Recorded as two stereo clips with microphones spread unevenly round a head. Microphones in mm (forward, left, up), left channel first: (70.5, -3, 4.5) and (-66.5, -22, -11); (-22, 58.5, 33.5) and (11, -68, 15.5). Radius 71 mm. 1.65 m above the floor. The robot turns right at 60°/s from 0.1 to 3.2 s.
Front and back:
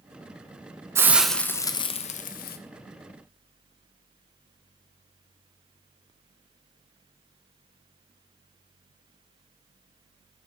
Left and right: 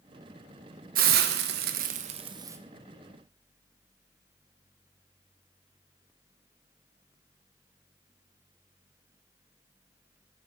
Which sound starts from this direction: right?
A hiss, at 0.9 s.